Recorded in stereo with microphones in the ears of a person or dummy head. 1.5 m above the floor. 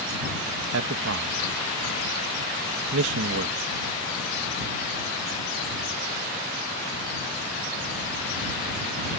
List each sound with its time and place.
0.7 s a man speaking: 70° right (ahead or behind)